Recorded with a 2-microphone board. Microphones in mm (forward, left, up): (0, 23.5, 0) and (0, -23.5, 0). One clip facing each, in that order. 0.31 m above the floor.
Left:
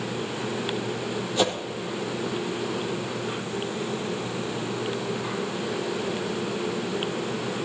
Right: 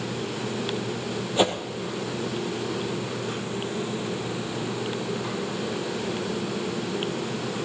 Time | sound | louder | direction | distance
1.4 | a whoosh | right 2 dB | 25° right (ahead or behind) | 3 m